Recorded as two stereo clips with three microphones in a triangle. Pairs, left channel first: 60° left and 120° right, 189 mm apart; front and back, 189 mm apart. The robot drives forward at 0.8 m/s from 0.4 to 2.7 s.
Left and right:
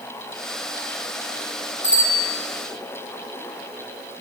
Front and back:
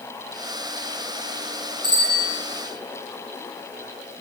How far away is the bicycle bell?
About 4 m.